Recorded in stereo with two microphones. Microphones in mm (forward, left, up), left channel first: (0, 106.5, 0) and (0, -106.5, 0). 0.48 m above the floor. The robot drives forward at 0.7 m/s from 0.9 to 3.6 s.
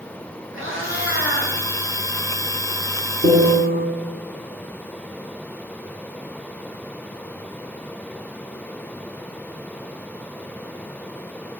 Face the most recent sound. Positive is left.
turn(degrees=-70)  # may be behind; listen again after turning